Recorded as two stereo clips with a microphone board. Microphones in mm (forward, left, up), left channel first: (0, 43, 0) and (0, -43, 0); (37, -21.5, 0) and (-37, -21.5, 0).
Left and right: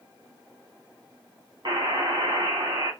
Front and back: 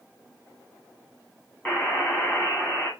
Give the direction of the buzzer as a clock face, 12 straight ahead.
2 o'clock.